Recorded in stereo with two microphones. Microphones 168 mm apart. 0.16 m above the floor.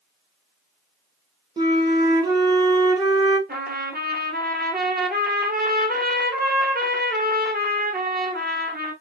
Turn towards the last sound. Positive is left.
turn(degrees=-65)  # may be behind; listen again after turning